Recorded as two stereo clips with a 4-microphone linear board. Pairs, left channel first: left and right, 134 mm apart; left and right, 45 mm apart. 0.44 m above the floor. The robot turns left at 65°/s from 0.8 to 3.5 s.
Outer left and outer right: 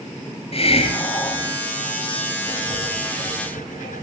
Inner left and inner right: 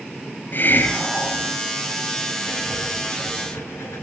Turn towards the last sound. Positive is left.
turn(degrees=95)